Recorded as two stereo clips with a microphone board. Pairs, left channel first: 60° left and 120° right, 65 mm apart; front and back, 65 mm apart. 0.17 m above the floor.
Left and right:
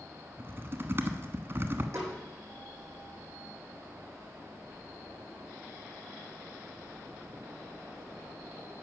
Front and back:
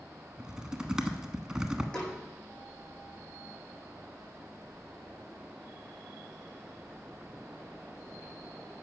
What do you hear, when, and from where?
0.4 s typing on a keyboard: 110° right, 1.2 m
1.9 s a snare drum: 75° right, 7.5 m